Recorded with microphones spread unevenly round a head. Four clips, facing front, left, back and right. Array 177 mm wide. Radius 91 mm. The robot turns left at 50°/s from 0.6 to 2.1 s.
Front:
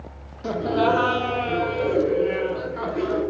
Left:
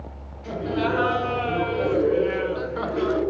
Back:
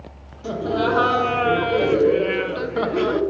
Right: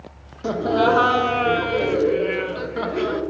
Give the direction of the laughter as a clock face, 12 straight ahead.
3 o'clock.